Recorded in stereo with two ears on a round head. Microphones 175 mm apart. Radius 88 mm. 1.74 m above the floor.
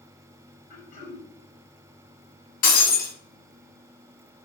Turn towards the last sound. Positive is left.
turn(degrees=45)  # may be behind; listen again after turning